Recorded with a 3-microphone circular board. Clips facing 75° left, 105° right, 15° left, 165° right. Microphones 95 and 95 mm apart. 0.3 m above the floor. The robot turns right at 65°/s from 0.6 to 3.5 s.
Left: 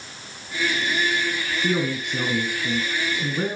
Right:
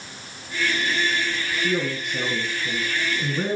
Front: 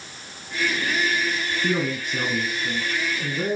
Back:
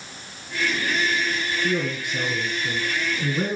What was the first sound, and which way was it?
A man speaking, 35° left.